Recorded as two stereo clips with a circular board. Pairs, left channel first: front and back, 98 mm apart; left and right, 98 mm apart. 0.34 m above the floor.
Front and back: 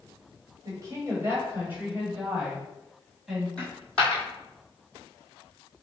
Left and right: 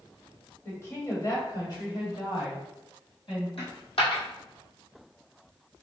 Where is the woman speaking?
145° left, 1.4 m; by 3.5 s 95° left, 2 m.